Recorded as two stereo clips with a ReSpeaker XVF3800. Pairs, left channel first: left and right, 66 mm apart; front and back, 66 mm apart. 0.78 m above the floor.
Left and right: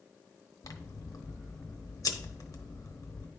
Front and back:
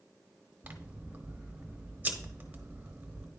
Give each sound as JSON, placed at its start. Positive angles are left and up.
{"t": 0.6, "sound": "scissors", "azimuth_deg": 115, "distance_m": 0.8}